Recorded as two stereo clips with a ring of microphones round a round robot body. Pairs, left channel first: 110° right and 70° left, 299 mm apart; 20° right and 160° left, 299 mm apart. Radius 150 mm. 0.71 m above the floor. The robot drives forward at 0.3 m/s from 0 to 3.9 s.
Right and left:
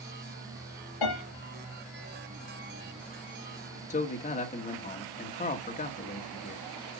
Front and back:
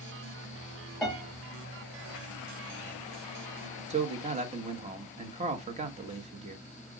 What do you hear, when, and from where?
1.0 s a piano: 115° right, 5.5 m
3.9 s a man speaking: 155° right, 1.2 m